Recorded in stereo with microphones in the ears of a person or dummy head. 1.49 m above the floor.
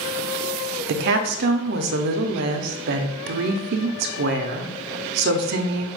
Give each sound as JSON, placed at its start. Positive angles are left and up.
{"t": 0.9, "sound": "a woman speaking", "side_deg": -55, "distance_m": 0.6}